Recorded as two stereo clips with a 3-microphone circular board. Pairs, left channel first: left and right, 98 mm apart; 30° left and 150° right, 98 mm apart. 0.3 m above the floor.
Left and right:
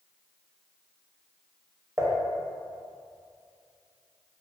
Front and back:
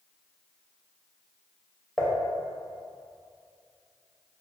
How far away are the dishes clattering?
About 0.6 m.